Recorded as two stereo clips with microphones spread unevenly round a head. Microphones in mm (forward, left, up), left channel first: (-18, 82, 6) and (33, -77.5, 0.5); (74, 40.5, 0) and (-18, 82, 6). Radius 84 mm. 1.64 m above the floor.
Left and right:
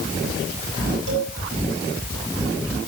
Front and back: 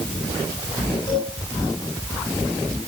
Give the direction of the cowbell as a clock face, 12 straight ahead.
3 o'clock.